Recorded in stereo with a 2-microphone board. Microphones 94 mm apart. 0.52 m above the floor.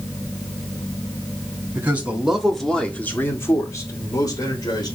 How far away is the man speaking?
About 1.2 m.